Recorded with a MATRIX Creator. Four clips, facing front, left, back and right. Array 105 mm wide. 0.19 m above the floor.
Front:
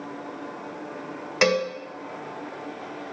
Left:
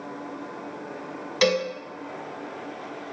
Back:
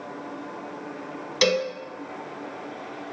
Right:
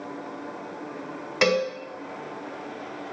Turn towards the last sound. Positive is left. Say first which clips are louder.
# even, front 1 dB
turn(degrees=-30)